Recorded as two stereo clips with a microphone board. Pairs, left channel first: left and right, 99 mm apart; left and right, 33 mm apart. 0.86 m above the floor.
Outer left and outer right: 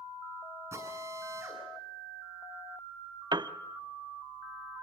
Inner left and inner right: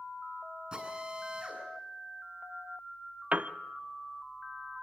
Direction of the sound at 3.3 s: 45° right (ahead or behind).